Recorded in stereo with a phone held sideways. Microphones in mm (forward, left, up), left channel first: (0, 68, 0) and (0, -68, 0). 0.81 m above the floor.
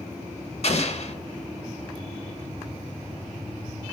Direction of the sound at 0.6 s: 50° left (ahead or behind).